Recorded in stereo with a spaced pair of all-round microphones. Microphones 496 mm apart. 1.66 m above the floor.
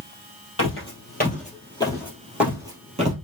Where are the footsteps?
25° left (ahead or behind), 2 m; by 3.1 s 15° right (ahead or behind), 1.7 m.